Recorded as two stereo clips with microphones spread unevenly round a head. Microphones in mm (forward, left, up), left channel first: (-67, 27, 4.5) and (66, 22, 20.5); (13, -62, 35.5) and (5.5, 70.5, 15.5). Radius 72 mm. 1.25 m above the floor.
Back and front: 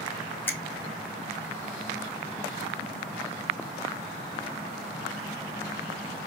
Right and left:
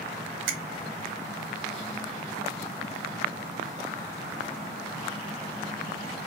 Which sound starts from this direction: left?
A finger snap, at 0.5 s.